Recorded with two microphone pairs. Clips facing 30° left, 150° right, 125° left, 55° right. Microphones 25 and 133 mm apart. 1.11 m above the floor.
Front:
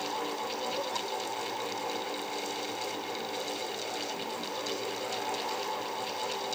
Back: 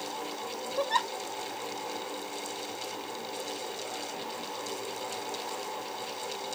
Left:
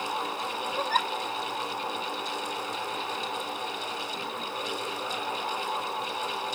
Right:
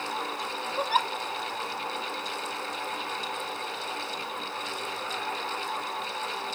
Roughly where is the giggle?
Behind right.